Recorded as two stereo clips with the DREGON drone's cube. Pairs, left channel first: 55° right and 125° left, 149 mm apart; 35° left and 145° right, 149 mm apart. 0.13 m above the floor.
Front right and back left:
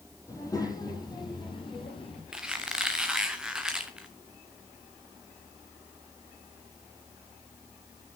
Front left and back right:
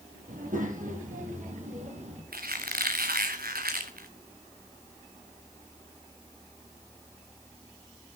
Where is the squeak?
150° right, 1.7 m.